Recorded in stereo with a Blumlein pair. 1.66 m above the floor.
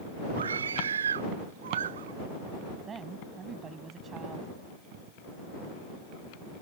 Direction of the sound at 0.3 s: 70° right.